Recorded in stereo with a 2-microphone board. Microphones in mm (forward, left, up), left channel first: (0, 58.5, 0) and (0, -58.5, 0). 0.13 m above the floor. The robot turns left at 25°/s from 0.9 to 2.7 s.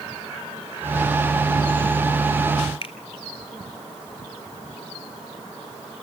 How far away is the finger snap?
About 1.9 m.